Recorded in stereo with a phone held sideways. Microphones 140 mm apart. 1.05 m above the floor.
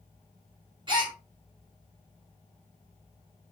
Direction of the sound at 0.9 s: 35° right (ahead or behind).